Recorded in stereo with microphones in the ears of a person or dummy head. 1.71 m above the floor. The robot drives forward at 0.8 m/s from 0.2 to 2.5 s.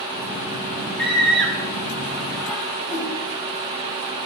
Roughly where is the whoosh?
Left.